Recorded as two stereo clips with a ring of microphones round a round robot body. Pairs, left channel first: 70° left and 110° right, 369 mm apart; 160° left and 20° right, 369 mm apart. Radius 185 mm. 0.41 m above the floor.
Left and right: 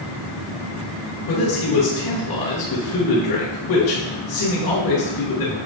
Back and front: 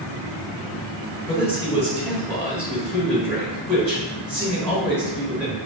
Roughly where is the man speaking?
Left.